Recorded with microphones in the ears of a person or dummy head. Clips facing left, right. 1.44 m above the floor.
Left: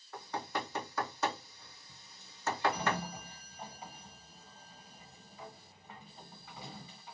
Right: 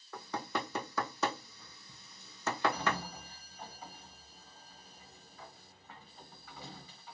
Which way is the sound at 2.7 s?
15° left (ahead or behind).